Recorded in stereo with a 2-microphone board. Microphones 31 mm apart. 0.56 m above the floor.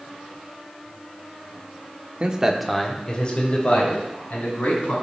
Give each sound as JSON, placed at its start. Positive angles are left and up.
{"t": 2.2, "sound": "a man speaking", "side_deg": -35, "distance_m": 1.1}